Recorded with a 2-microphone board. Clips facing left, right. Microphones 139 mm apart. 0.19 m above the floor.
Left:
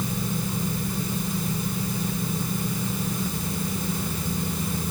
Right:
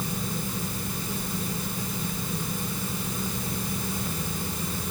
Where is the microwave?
No microwave in this recording.